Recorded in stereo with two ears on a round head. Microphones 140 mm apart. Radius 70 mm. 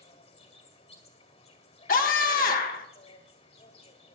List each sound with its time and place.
0.0 s an insect: 40° left (ahead or behind), 2.0 m
1.9 s a scream: 55° left (ahead or behind), 1.5 m